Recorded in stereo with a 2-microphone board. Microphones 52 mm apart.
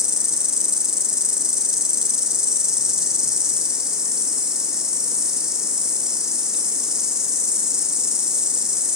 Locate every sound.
0.0 s an insect: 15° right (ahead or behind), 2 m